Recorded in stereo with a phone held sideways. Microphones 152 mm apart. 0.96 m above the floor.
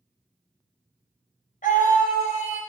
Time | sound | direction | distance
1.6 | a scream | 70° left (ahead or behind) | 5 m